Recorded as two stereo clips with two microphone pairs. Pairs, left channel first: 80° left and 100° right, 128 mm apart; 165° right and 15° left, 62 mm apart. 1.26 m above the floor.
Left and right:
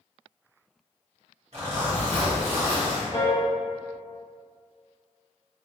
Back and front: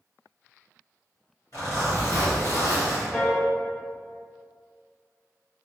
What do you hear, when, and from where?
1.5 s a zipper: 135° right, 1.6 m
3.1 s a piano: 135° left, 1.0 m